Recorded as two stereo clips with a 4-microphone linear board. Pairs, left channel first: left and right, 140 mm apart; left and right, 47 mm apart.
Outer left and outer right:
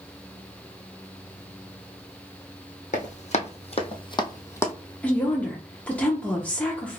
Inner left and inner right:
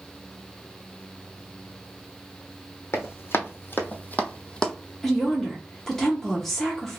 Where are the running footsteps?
60° left (ahead or behind), 1.1 m; by 4.7 s 15° left (ahead or behind), 0.9 m.